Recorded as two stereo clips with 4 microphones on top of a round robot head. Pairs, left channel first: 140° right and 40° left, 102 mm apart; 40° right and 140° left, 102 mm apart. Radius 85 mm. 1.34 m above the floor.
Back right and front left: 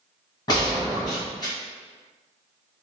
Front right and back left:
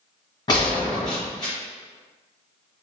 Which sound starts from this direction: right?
A gunshot, at 0.5 s.